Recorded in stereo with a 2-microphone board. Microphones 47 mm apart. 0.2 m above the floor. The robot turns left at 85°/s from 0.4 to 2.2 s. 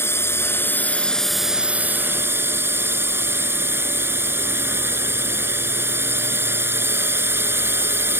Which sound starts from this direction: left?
A drone, at 0.0 s.